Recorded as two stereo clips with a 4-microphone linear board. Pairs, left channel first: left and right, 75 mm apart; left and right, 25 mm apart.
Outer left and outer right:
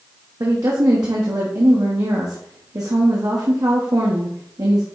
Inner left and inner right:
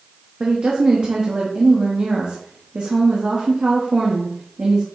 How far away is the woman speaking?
About 1.3 m.